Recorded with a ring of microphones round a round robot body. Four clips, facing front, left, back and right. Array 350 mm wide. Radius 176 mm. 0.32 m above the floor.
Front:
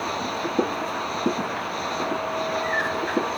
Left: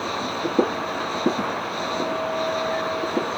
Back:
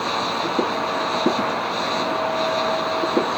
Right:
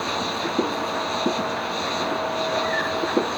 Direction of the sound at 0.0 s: 150° right.